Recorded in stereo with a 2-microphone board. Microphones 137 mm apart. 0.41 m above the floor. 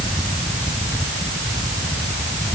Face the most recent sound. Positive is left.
No sound to turn to.